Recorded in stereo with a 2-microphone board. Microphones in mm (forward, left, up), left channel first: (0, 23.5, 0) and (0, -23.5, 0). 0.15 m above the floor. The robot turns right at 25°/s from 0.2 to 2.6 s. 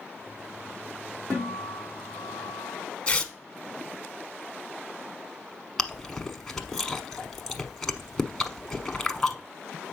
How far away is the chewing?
About 0.9 m.